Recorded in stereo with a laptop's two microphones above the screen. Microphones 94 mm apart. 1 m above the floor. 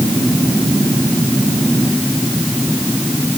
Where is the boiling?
I don't hear boiling.